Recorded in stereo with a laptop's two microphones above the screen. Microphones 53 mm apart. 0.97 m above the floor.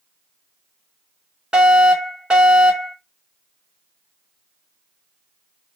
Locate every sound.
1.5 s a fire alarm: 20° right (ahead or behind), 2.5 m